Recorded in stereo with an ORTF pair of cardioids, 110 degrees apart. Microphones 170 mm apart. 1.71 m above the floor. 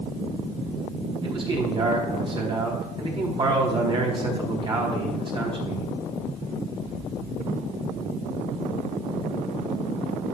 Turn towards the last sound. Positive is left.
turn(degrees=-30)